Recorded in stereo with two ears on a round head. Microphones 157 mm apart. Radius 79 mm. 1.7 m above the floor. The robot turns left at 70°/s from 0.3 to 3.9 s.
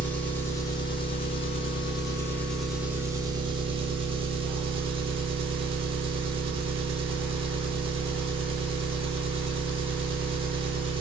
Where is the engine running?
165° left, 0.8 m; by 11.0 s 90° right, 0.8 m.